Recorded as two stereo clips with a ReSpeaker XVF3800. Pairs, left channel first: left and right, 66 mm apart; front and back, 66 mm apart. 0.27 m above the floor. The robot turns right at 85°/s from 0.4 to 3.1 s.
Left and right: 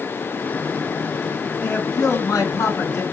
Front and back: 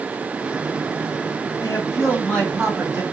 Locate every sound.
1.6 s a man speaking: 15° left, 1.8 m; by 3.0 s 135° left, 1.8 m